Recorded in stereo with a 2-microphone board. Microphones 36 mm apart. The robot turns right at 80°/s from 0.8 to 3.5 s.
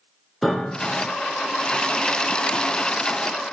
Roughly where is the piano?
Centre.